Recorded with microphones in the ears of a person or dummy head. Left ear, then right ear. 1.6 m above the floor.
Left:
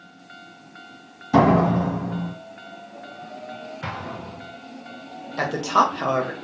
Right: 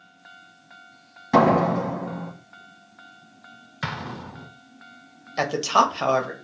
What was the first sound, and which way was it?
A door slam, 50° right (ahead or behind).